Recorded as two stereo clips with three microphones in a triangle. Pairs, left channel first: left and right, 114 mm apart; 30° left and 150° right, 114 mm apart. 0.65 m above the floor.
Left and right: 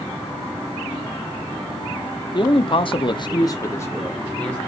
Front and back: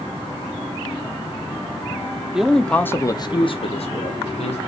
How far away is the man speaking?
About 0.9 m.